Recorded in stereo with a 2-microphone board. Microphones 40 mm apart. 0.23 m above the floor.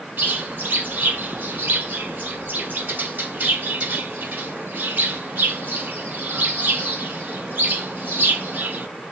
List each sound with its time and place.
0.2 s a bird: 50° right (ahead or behind), 1.2 m